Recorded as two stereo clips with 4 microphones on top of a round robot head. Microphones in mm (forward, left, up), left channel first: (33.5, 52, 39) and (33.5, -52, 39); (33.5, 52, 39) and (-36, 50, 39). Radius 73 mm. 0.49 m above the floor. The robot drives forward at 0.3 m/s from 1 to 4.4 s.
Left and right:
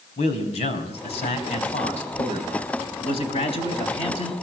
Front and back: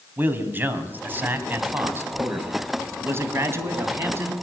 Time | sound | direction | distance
0.2 | a man speaking | 120° left | 4 m